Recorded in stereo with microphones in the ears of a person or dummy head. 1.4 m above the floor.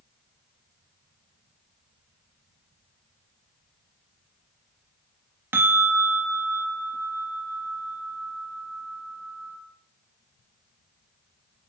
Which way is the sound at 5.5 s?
15° right (ahead or behind).